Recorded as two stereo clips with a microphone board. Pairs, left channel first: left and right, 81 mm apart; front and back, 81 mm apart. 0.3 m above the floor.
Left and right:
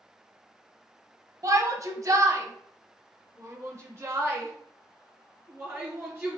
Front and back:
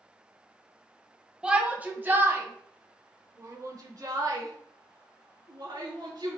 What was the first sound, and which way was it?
A shout, 105° right.